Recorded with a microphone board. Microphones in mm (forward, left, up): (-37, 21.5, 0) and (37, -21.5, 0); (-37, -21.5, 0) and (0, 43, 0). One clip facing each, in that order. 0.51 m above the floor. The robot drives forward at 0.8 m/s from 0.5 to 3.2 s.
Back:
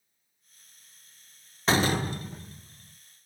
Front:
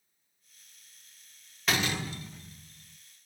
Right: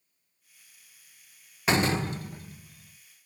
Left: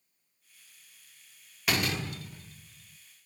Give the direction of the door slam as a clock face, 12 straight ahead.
6 o'clock.